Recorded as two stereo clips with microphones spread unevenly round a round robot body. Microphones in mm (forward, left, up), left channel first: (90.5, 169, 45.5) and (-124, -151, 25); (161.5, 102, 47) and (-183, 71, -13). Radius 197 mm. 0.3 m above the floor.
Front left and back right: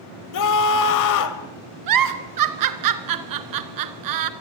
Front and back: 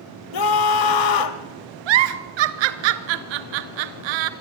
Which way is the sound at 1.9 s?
165° right.